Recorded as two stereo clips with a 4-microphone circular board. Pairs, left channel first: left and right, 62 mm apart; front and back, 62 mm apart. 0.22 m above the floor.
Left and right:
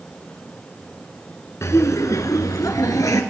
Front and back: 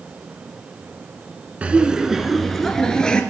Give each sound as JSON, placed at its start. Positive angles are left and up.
{"t": 1.6, "sound": "laughter", "azimuth_deg": 115, "distance_m": 2.0}